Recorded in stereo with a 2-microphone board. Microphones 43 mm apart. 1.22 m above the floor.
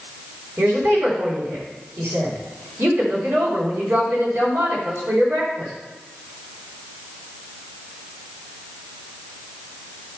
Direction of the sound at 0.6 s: 75° right (ahead or behind).